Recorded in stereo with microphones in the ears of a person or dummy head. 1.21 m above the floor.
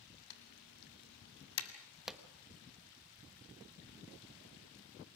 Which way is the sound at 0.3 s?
75° left (ahead or behind).